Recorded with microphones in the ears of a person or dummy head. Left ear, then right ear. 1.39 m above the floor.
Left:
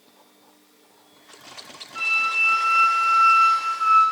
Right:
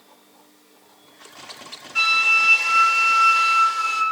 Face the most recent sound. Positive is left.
turn(degrees=-30)  # may be behind; listen again after turning